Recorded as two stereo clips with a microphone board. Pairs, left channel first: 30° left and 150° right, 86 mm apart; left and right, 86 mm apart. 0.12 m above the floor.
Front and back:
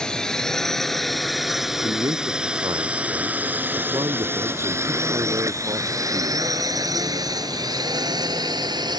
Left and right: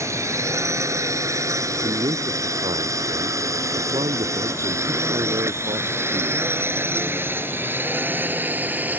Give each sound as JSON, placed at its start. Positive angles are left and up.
{"t": 0.0, "sound": "a drone", "azimuth_deg": -50}
{"t": 1.8, "sound": "a man speaking", "azimuth_deg": -105}